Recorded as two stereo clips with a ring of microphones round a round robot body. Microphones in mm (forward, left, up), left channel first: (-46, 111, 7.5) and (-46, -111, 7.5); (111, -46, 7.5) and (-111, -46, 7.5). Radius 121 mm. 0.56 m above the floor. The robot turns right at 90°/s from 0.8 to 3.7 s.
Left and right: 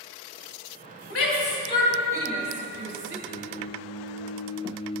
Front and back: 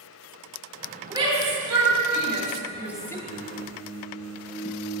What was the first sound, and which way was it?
A shout, 100° left.